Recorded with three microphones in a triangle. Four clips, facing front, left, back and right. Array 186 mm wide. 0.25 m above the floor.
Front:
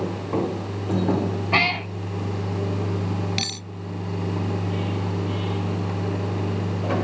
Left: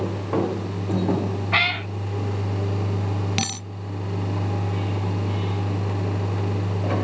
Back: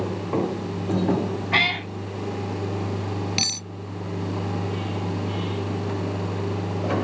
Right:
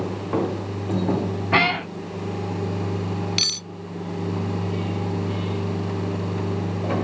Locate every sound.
1.5 s a cat meowing: 80° right
3.4 s cutlery clinking: 95° left